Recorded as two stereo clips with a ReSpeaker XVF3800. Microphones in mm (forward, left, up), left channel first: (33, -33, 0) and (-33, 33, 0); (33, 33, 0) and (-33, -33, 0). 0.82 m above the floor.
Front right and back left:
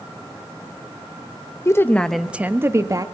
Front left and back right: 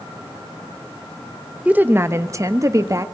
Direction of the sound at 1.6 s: 70° right.